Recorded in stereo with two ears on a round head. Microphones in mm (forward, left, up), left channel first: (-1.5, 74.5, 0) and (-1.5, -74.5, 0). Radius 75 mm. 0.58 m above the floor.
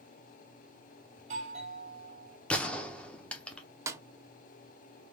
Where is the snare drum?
15° right (ahead or behind), 0.5 m.